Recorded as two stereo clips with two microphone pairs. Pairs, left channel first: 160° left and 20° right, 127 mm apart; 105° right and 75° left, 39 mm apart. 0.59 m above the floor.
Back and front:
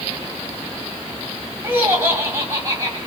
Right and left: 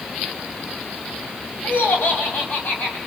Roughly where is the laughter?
Right.